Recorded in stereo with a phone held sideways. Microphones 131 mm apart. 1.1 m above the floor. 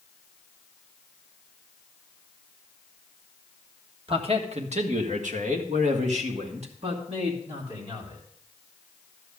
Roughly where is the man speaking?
Right.